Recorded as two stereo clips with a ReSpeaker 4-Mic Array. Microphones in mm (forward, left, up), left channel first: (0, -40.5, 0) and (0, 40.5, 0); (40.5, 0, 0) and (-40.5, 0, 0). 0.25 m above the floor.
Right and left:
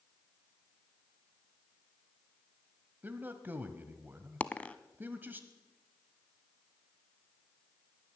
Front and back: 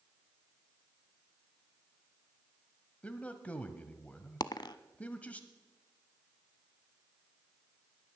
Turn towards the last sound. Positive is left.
turn(degrees=-20)